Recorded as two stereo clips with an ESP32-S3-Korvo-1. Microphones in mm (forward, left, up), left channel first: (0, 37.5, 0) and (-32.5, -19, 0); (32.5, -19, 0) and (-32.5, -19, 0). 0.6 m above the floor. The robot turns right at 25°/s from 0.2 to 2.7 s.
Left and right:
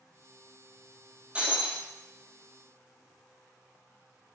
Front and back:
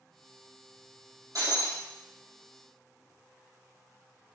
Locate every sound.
1.4 s breaking glass: 170° left, 1.3 m; by 1.8 s straight behind, 1.3 m